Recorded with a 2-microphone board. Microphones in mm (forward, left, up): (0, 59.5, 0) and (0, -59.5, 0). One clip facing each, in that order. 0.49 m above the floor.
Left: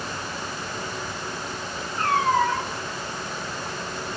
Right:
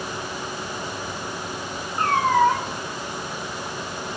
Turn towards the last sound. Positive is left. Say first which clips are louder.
# right 3 dB
turn(degrees=-70)  # may be behind; listen again after turning